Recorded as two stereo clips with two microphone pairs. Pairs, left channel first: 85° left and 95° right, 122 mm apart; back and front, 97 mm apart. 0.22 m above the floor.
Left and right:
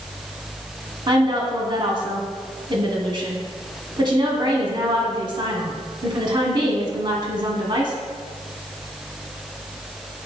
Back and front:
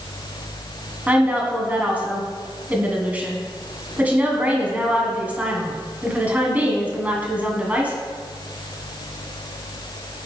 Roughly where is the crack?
No crack in this recording.